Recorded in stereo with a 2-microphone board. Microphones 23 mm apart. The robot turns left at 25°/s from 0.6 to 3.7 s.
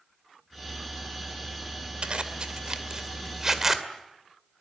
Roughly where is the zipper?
Right.